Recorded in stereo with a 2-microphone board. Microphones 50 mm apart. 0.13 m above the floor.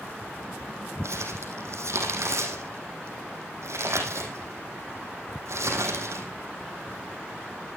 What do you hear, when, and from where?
1.0 s crumpling: 70° right (ahead or behind), 4 m